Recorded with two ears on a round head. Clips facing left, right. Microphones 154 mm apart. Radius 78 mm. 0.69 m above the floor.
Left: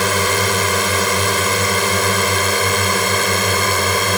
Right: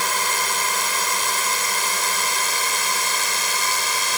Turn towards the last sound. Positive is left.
turn(degrees=50)  # may be behind; listen again after turning